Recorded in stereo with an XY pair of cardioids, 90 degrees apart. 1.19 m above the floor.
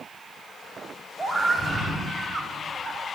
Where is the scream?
Straight ahead, 5.5 m; by 3.1 s 10° right, 5 m.